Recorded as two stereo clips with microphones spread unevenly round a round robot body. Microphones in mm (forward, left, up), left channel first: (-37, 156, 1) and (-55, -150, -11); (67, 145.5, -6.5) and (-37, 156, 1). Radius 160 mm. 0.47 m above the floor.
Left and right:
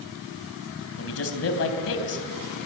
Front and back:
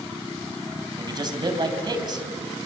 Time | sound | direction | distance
1.0 | a man speaking | 130° left | 4 m